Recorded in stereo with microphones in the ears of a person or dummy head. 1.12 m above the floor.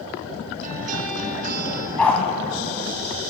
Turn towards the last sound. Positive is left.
turn(degrees=10)  # may be behind; listen again after turning